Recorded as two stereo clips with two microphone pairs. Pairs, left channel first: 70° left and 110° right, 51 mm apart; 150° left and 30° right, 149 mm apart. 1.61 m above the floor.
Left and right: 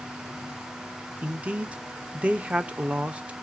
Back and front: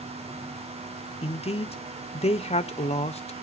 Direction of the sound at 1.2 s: 175° right.